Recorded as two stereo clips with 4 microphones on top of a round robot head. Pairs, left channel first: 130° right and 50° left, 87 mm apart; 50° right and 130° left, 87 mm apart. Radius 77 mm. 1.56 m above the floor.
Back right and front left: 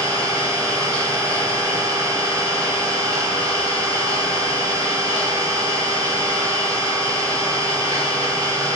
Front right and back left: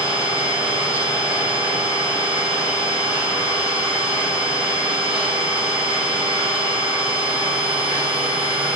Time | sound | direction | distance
0.0 | an engine running | 100° left | 5 m